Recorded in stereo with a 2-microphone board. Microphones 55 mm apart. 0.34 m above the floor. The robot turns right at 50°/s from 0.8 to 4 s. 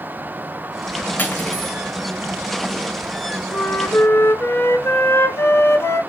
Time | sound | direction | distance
1.2 | cutlery clinking | 40° left (ahead or behind) | 0.8 m
3.5 | a flute | 30° left (ahead or behind) | 0.5 m